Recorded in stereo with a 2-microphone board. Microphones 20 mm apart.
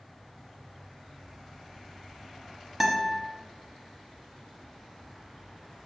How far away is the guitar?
About 0.7 m.